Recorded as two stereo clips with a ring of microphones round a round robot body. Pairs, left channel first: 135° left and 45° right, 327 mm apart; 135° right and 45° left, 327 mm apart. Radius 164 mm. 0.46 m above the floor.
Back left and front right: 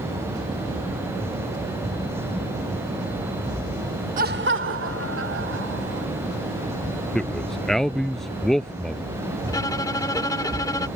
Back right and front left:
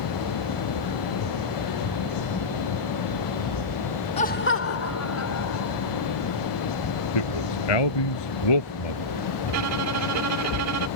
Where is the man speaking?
135° right.